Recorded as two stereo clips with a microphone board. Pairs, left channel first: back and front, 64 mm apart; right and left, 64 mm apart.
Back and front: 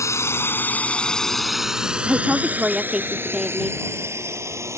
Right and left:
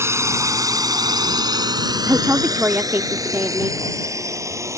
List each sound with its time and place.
0.0 s a drone: 140° left; by 4.8 s 45° left
2.1 s a woman speaking: 70° left